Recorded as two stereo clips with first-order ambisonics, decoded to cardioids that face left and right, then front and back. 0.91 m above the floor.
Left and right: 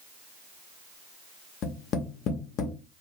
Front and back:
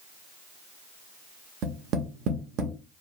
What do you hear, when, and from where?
1.6 s tapping: 135° left, 0.7 m